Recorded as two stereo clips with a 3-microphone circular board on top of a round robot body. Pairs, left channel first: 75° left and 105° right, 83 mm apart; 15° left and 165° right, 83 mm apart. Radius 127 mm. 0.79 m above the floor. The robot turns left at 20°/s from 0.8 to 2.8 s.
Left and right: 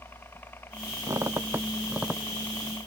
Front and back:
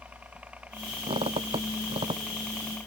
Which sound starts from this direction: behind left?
A helicopter, at 0.0 s.